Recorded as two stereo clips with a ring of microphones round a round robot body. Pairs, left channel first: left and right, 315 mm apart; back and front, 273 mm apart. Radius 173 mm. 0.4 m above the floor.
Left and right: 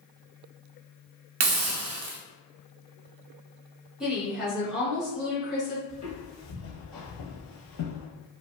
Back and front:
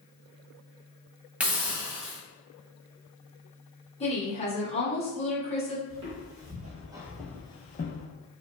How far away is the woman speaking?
About 1.3 m.